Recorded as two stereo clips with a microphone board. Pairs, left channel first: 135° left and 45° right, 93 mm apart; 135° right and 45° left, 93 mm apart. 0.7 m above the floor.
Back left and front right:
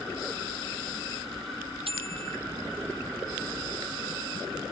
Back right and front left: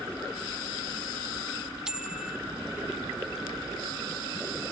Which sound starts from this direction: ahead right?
A bicycle bell, at 1.9 s.